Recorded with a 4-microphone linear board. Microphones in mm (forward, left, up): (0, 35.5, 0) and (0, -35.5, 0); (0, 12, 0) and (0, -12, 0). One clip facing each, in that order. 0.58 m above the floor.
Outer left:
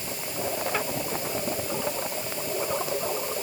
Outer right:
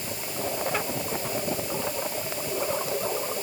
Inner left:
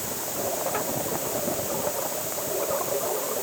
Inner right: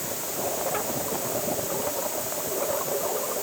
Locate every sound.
Only background noise.